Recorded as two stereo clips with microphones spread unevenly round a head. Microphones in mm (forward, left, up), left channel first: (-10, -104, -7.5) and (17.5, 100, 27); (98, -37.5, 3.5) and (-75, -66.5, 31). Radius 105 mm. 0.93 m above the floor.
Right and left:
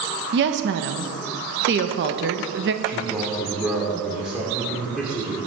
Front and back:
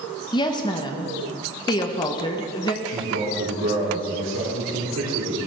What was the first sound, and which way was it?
A woman speaking, 60° left.